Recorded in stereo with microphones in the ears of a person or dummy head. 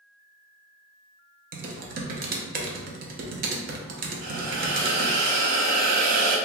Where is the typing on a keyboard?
45° right (ahead or behind), 0.6 m.